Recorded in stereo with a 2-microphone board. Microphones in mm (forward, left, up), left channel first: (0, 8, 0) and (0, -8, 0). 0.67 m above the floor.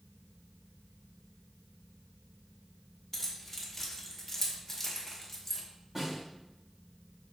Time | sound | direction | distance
3.1 | keys jangling | 15° left (ahead or behind) | 1.0 m
6.0 | a snare drum | 15° right (ahead or behind) | 1.5 m